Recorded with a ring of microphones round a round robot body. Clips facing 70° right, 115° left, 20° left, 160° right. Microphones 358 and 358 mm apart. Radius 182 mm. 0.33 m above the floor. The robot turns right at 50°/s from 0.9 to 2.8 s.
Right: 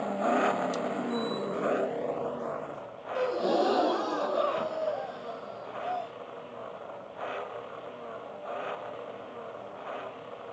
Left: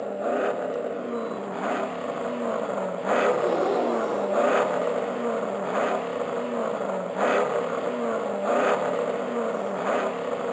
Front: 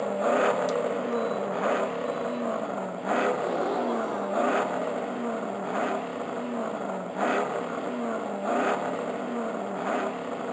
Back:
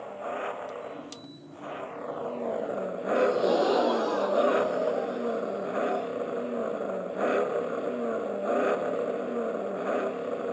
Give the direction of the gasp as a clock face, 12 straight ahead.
4 o'clock.